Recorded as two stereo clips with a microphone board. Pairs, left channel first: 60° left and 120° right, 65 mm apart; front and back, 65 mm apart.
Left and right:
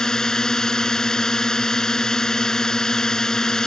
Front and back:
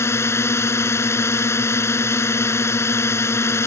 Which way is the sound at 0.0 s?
15° right.